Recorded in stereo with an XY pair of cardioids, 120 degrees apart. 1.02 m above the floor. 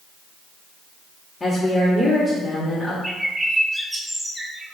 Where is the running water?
No running water in this recording.